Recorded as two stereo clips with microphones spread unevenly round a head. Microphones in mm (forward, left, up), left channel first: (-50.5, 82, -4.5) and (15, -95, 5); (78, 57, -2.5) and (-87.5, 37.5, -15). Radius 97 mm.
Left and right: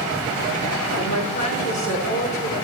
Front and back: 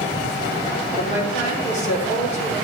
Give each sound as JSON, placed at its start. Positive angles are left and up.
{"t": 1.0, "sound": "a woman speaking", "azimuth_deg": 55, "distance_m": 5.0}